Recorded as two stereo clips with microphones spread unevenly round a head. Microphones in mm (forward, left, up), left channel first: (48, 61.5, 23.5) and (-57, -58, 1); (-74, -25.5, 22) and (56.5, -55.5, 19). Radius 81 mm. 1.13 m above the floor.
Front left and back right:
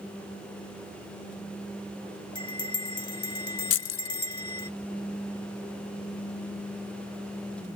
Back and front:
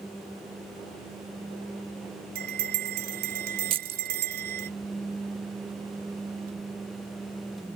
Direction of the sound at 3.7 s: 45° left.